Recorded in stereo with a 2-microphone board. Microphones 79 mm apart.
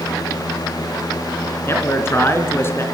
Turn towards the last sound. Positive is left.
turn(degrees=30)  # may be behind; listen again after turning